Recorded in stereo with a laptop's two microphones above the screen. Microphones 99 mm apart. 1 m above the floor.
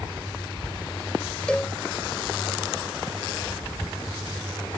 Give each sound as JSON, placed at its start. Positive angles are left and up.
{"t": 1.5, "sound": "a cowbell", "side_deg": 10}